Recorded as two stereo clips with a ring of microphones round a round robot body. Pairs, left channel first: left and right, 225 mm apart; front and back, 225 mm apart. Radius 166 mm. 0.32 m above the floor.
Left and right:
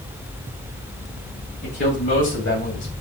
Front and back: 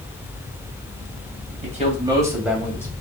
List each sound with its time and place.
1.6 s a man speaking: 130° left, 2.5 m; by 2.9 s 75° left, 2.5 m